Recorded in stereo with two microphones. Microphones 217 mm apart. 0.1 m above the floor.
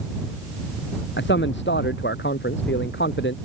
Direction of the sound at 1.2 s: 55° left (ahead or behind).